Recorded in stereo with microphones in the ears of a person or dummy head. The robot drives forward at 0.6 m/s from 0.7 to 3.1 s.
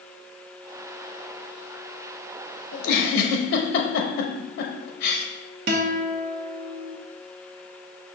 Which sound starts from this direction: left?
A giggle, at 2.7 s.